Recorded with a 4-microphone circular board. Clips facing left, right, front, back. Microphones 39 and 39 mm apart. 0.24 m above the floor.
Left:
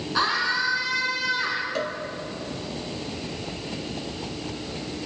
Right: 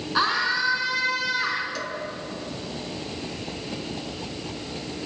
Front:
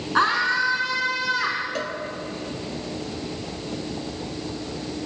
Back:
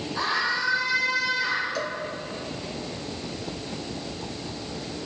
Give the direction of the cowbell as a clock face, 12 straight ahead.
11 o'clock.